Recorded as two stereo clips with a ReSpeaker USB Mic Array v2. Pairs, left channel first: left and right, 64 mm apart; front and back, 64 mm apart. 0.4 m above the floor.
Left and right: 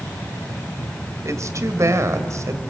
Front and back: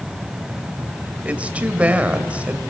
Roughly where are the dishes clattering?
I don't hear dishes clattering.